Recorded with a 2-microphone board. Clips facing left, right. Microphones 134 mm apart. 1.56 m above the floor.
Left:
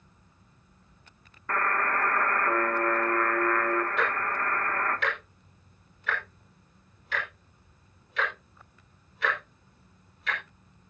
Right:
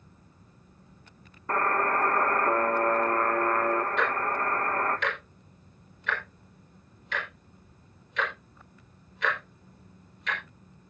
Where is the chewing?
I don't hear chewing.